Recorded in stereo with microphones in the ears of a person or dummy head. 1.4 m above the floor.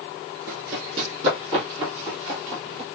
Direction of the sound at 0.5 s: 45° right (ahead or behind).